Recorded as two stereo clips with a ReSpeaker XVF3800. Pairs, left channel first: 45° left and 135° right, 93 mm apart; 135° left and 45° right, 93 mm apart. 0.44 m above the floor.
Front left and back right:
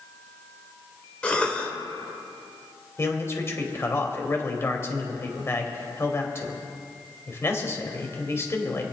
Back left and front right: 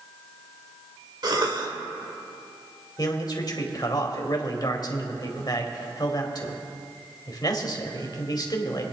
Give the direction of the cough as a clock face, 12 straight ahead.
1 o'clock.